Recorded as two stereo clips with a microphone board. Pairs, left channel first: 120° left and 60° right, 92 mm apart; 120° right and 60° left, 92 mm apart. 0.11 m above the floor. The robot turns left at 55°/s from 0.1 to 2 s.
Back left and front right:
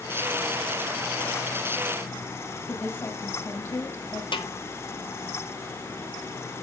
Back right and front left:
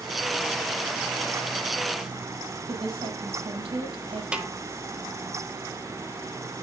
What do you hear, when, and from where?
2.7 s a woman speaking: 60° left, 4 m
4.3 s a snare drum: 140° left, 1.0 m